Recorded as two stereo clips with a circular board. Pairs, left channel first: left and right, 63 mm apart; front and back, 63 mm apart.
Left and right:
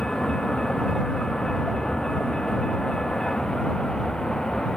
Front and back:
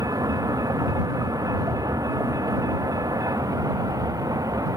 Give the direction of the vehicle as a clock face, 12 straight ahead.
6 o'clock.